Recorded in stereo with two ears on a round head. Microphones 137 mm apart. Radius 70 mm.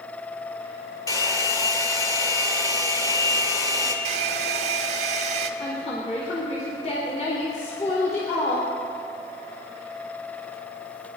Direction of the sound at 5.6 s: 45° left (ahead or behind).